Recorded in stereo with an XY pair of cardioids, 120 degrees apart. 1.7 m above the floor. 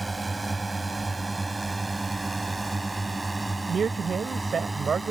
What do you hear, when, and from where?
0.0 s a drone: 10° right
3.7 s a man speaking: 35° right